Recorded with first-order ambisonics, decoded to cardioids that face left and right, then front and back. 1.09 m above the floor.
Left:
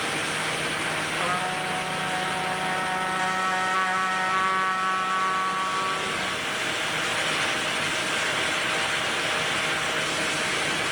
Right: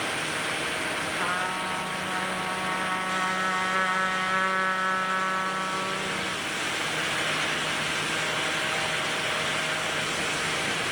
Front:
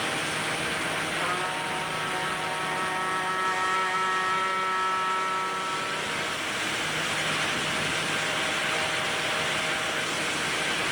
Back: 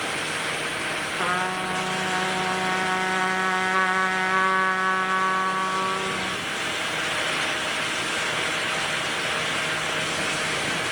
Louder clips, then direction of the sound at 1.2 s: Left 1 dB, back 3 dB; straight behind.